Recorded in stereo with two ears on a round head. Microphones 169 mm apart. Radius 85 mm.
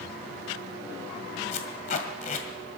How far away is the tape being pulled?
About 2.0 m.